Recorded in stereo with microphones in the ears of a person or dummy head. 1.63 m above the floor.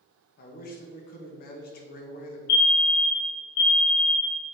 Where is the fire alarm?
65° left (ahead or behind), 2.5 m.